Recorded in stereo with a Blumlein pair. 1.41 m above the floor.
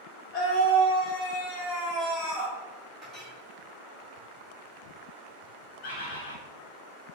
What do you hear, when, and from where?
0.3 s a scream: 30° left, 0.9 m; by 2.5 s 15° left, 2.5 m
3.0 s a clink: 10° left, 1.7 m
5.8 s a bird: 30° left, 1.4 m